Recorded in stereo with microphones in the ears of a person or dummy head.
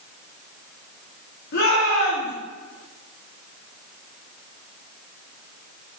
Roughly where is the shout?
Left.